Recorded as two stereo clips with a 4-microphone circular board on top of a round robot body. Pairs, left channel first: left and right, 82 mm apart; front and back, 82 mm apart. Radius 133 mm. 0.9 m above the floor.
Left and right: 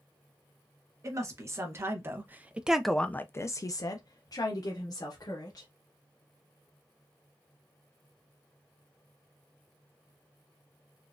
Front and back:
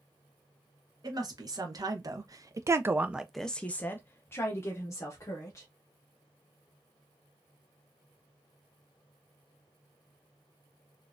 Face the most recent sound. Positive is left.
turn(degrees=50)